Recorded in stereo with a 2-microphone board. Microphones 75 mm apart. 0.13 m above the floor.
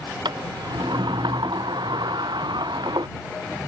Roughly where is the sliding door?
Right.